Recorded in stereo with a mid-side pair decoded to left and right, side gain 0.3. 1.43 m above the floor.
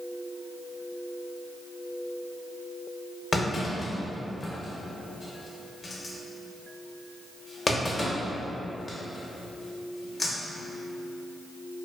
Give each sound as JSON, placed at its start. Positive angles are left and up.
{"t": 3.3, "sound": "a clunk", "azimuth_deg": 45, "distance_m": 0.7}